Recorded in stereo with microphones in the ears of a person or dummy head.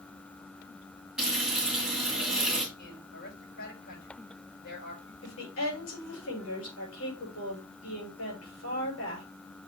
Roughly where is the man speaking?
Left.